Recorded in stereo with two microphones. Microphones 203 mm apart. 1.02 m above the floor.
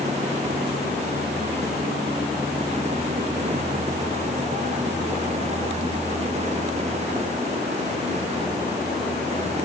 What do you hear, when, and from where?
Only background noise.